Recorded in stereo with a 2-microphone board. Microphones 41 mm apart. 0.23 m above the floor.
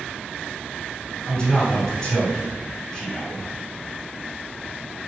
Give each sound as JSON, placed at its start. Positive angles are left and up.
{"t": 1.2, "sound": "a man speaking", "side_deg": 15, "distance_m": 1.9}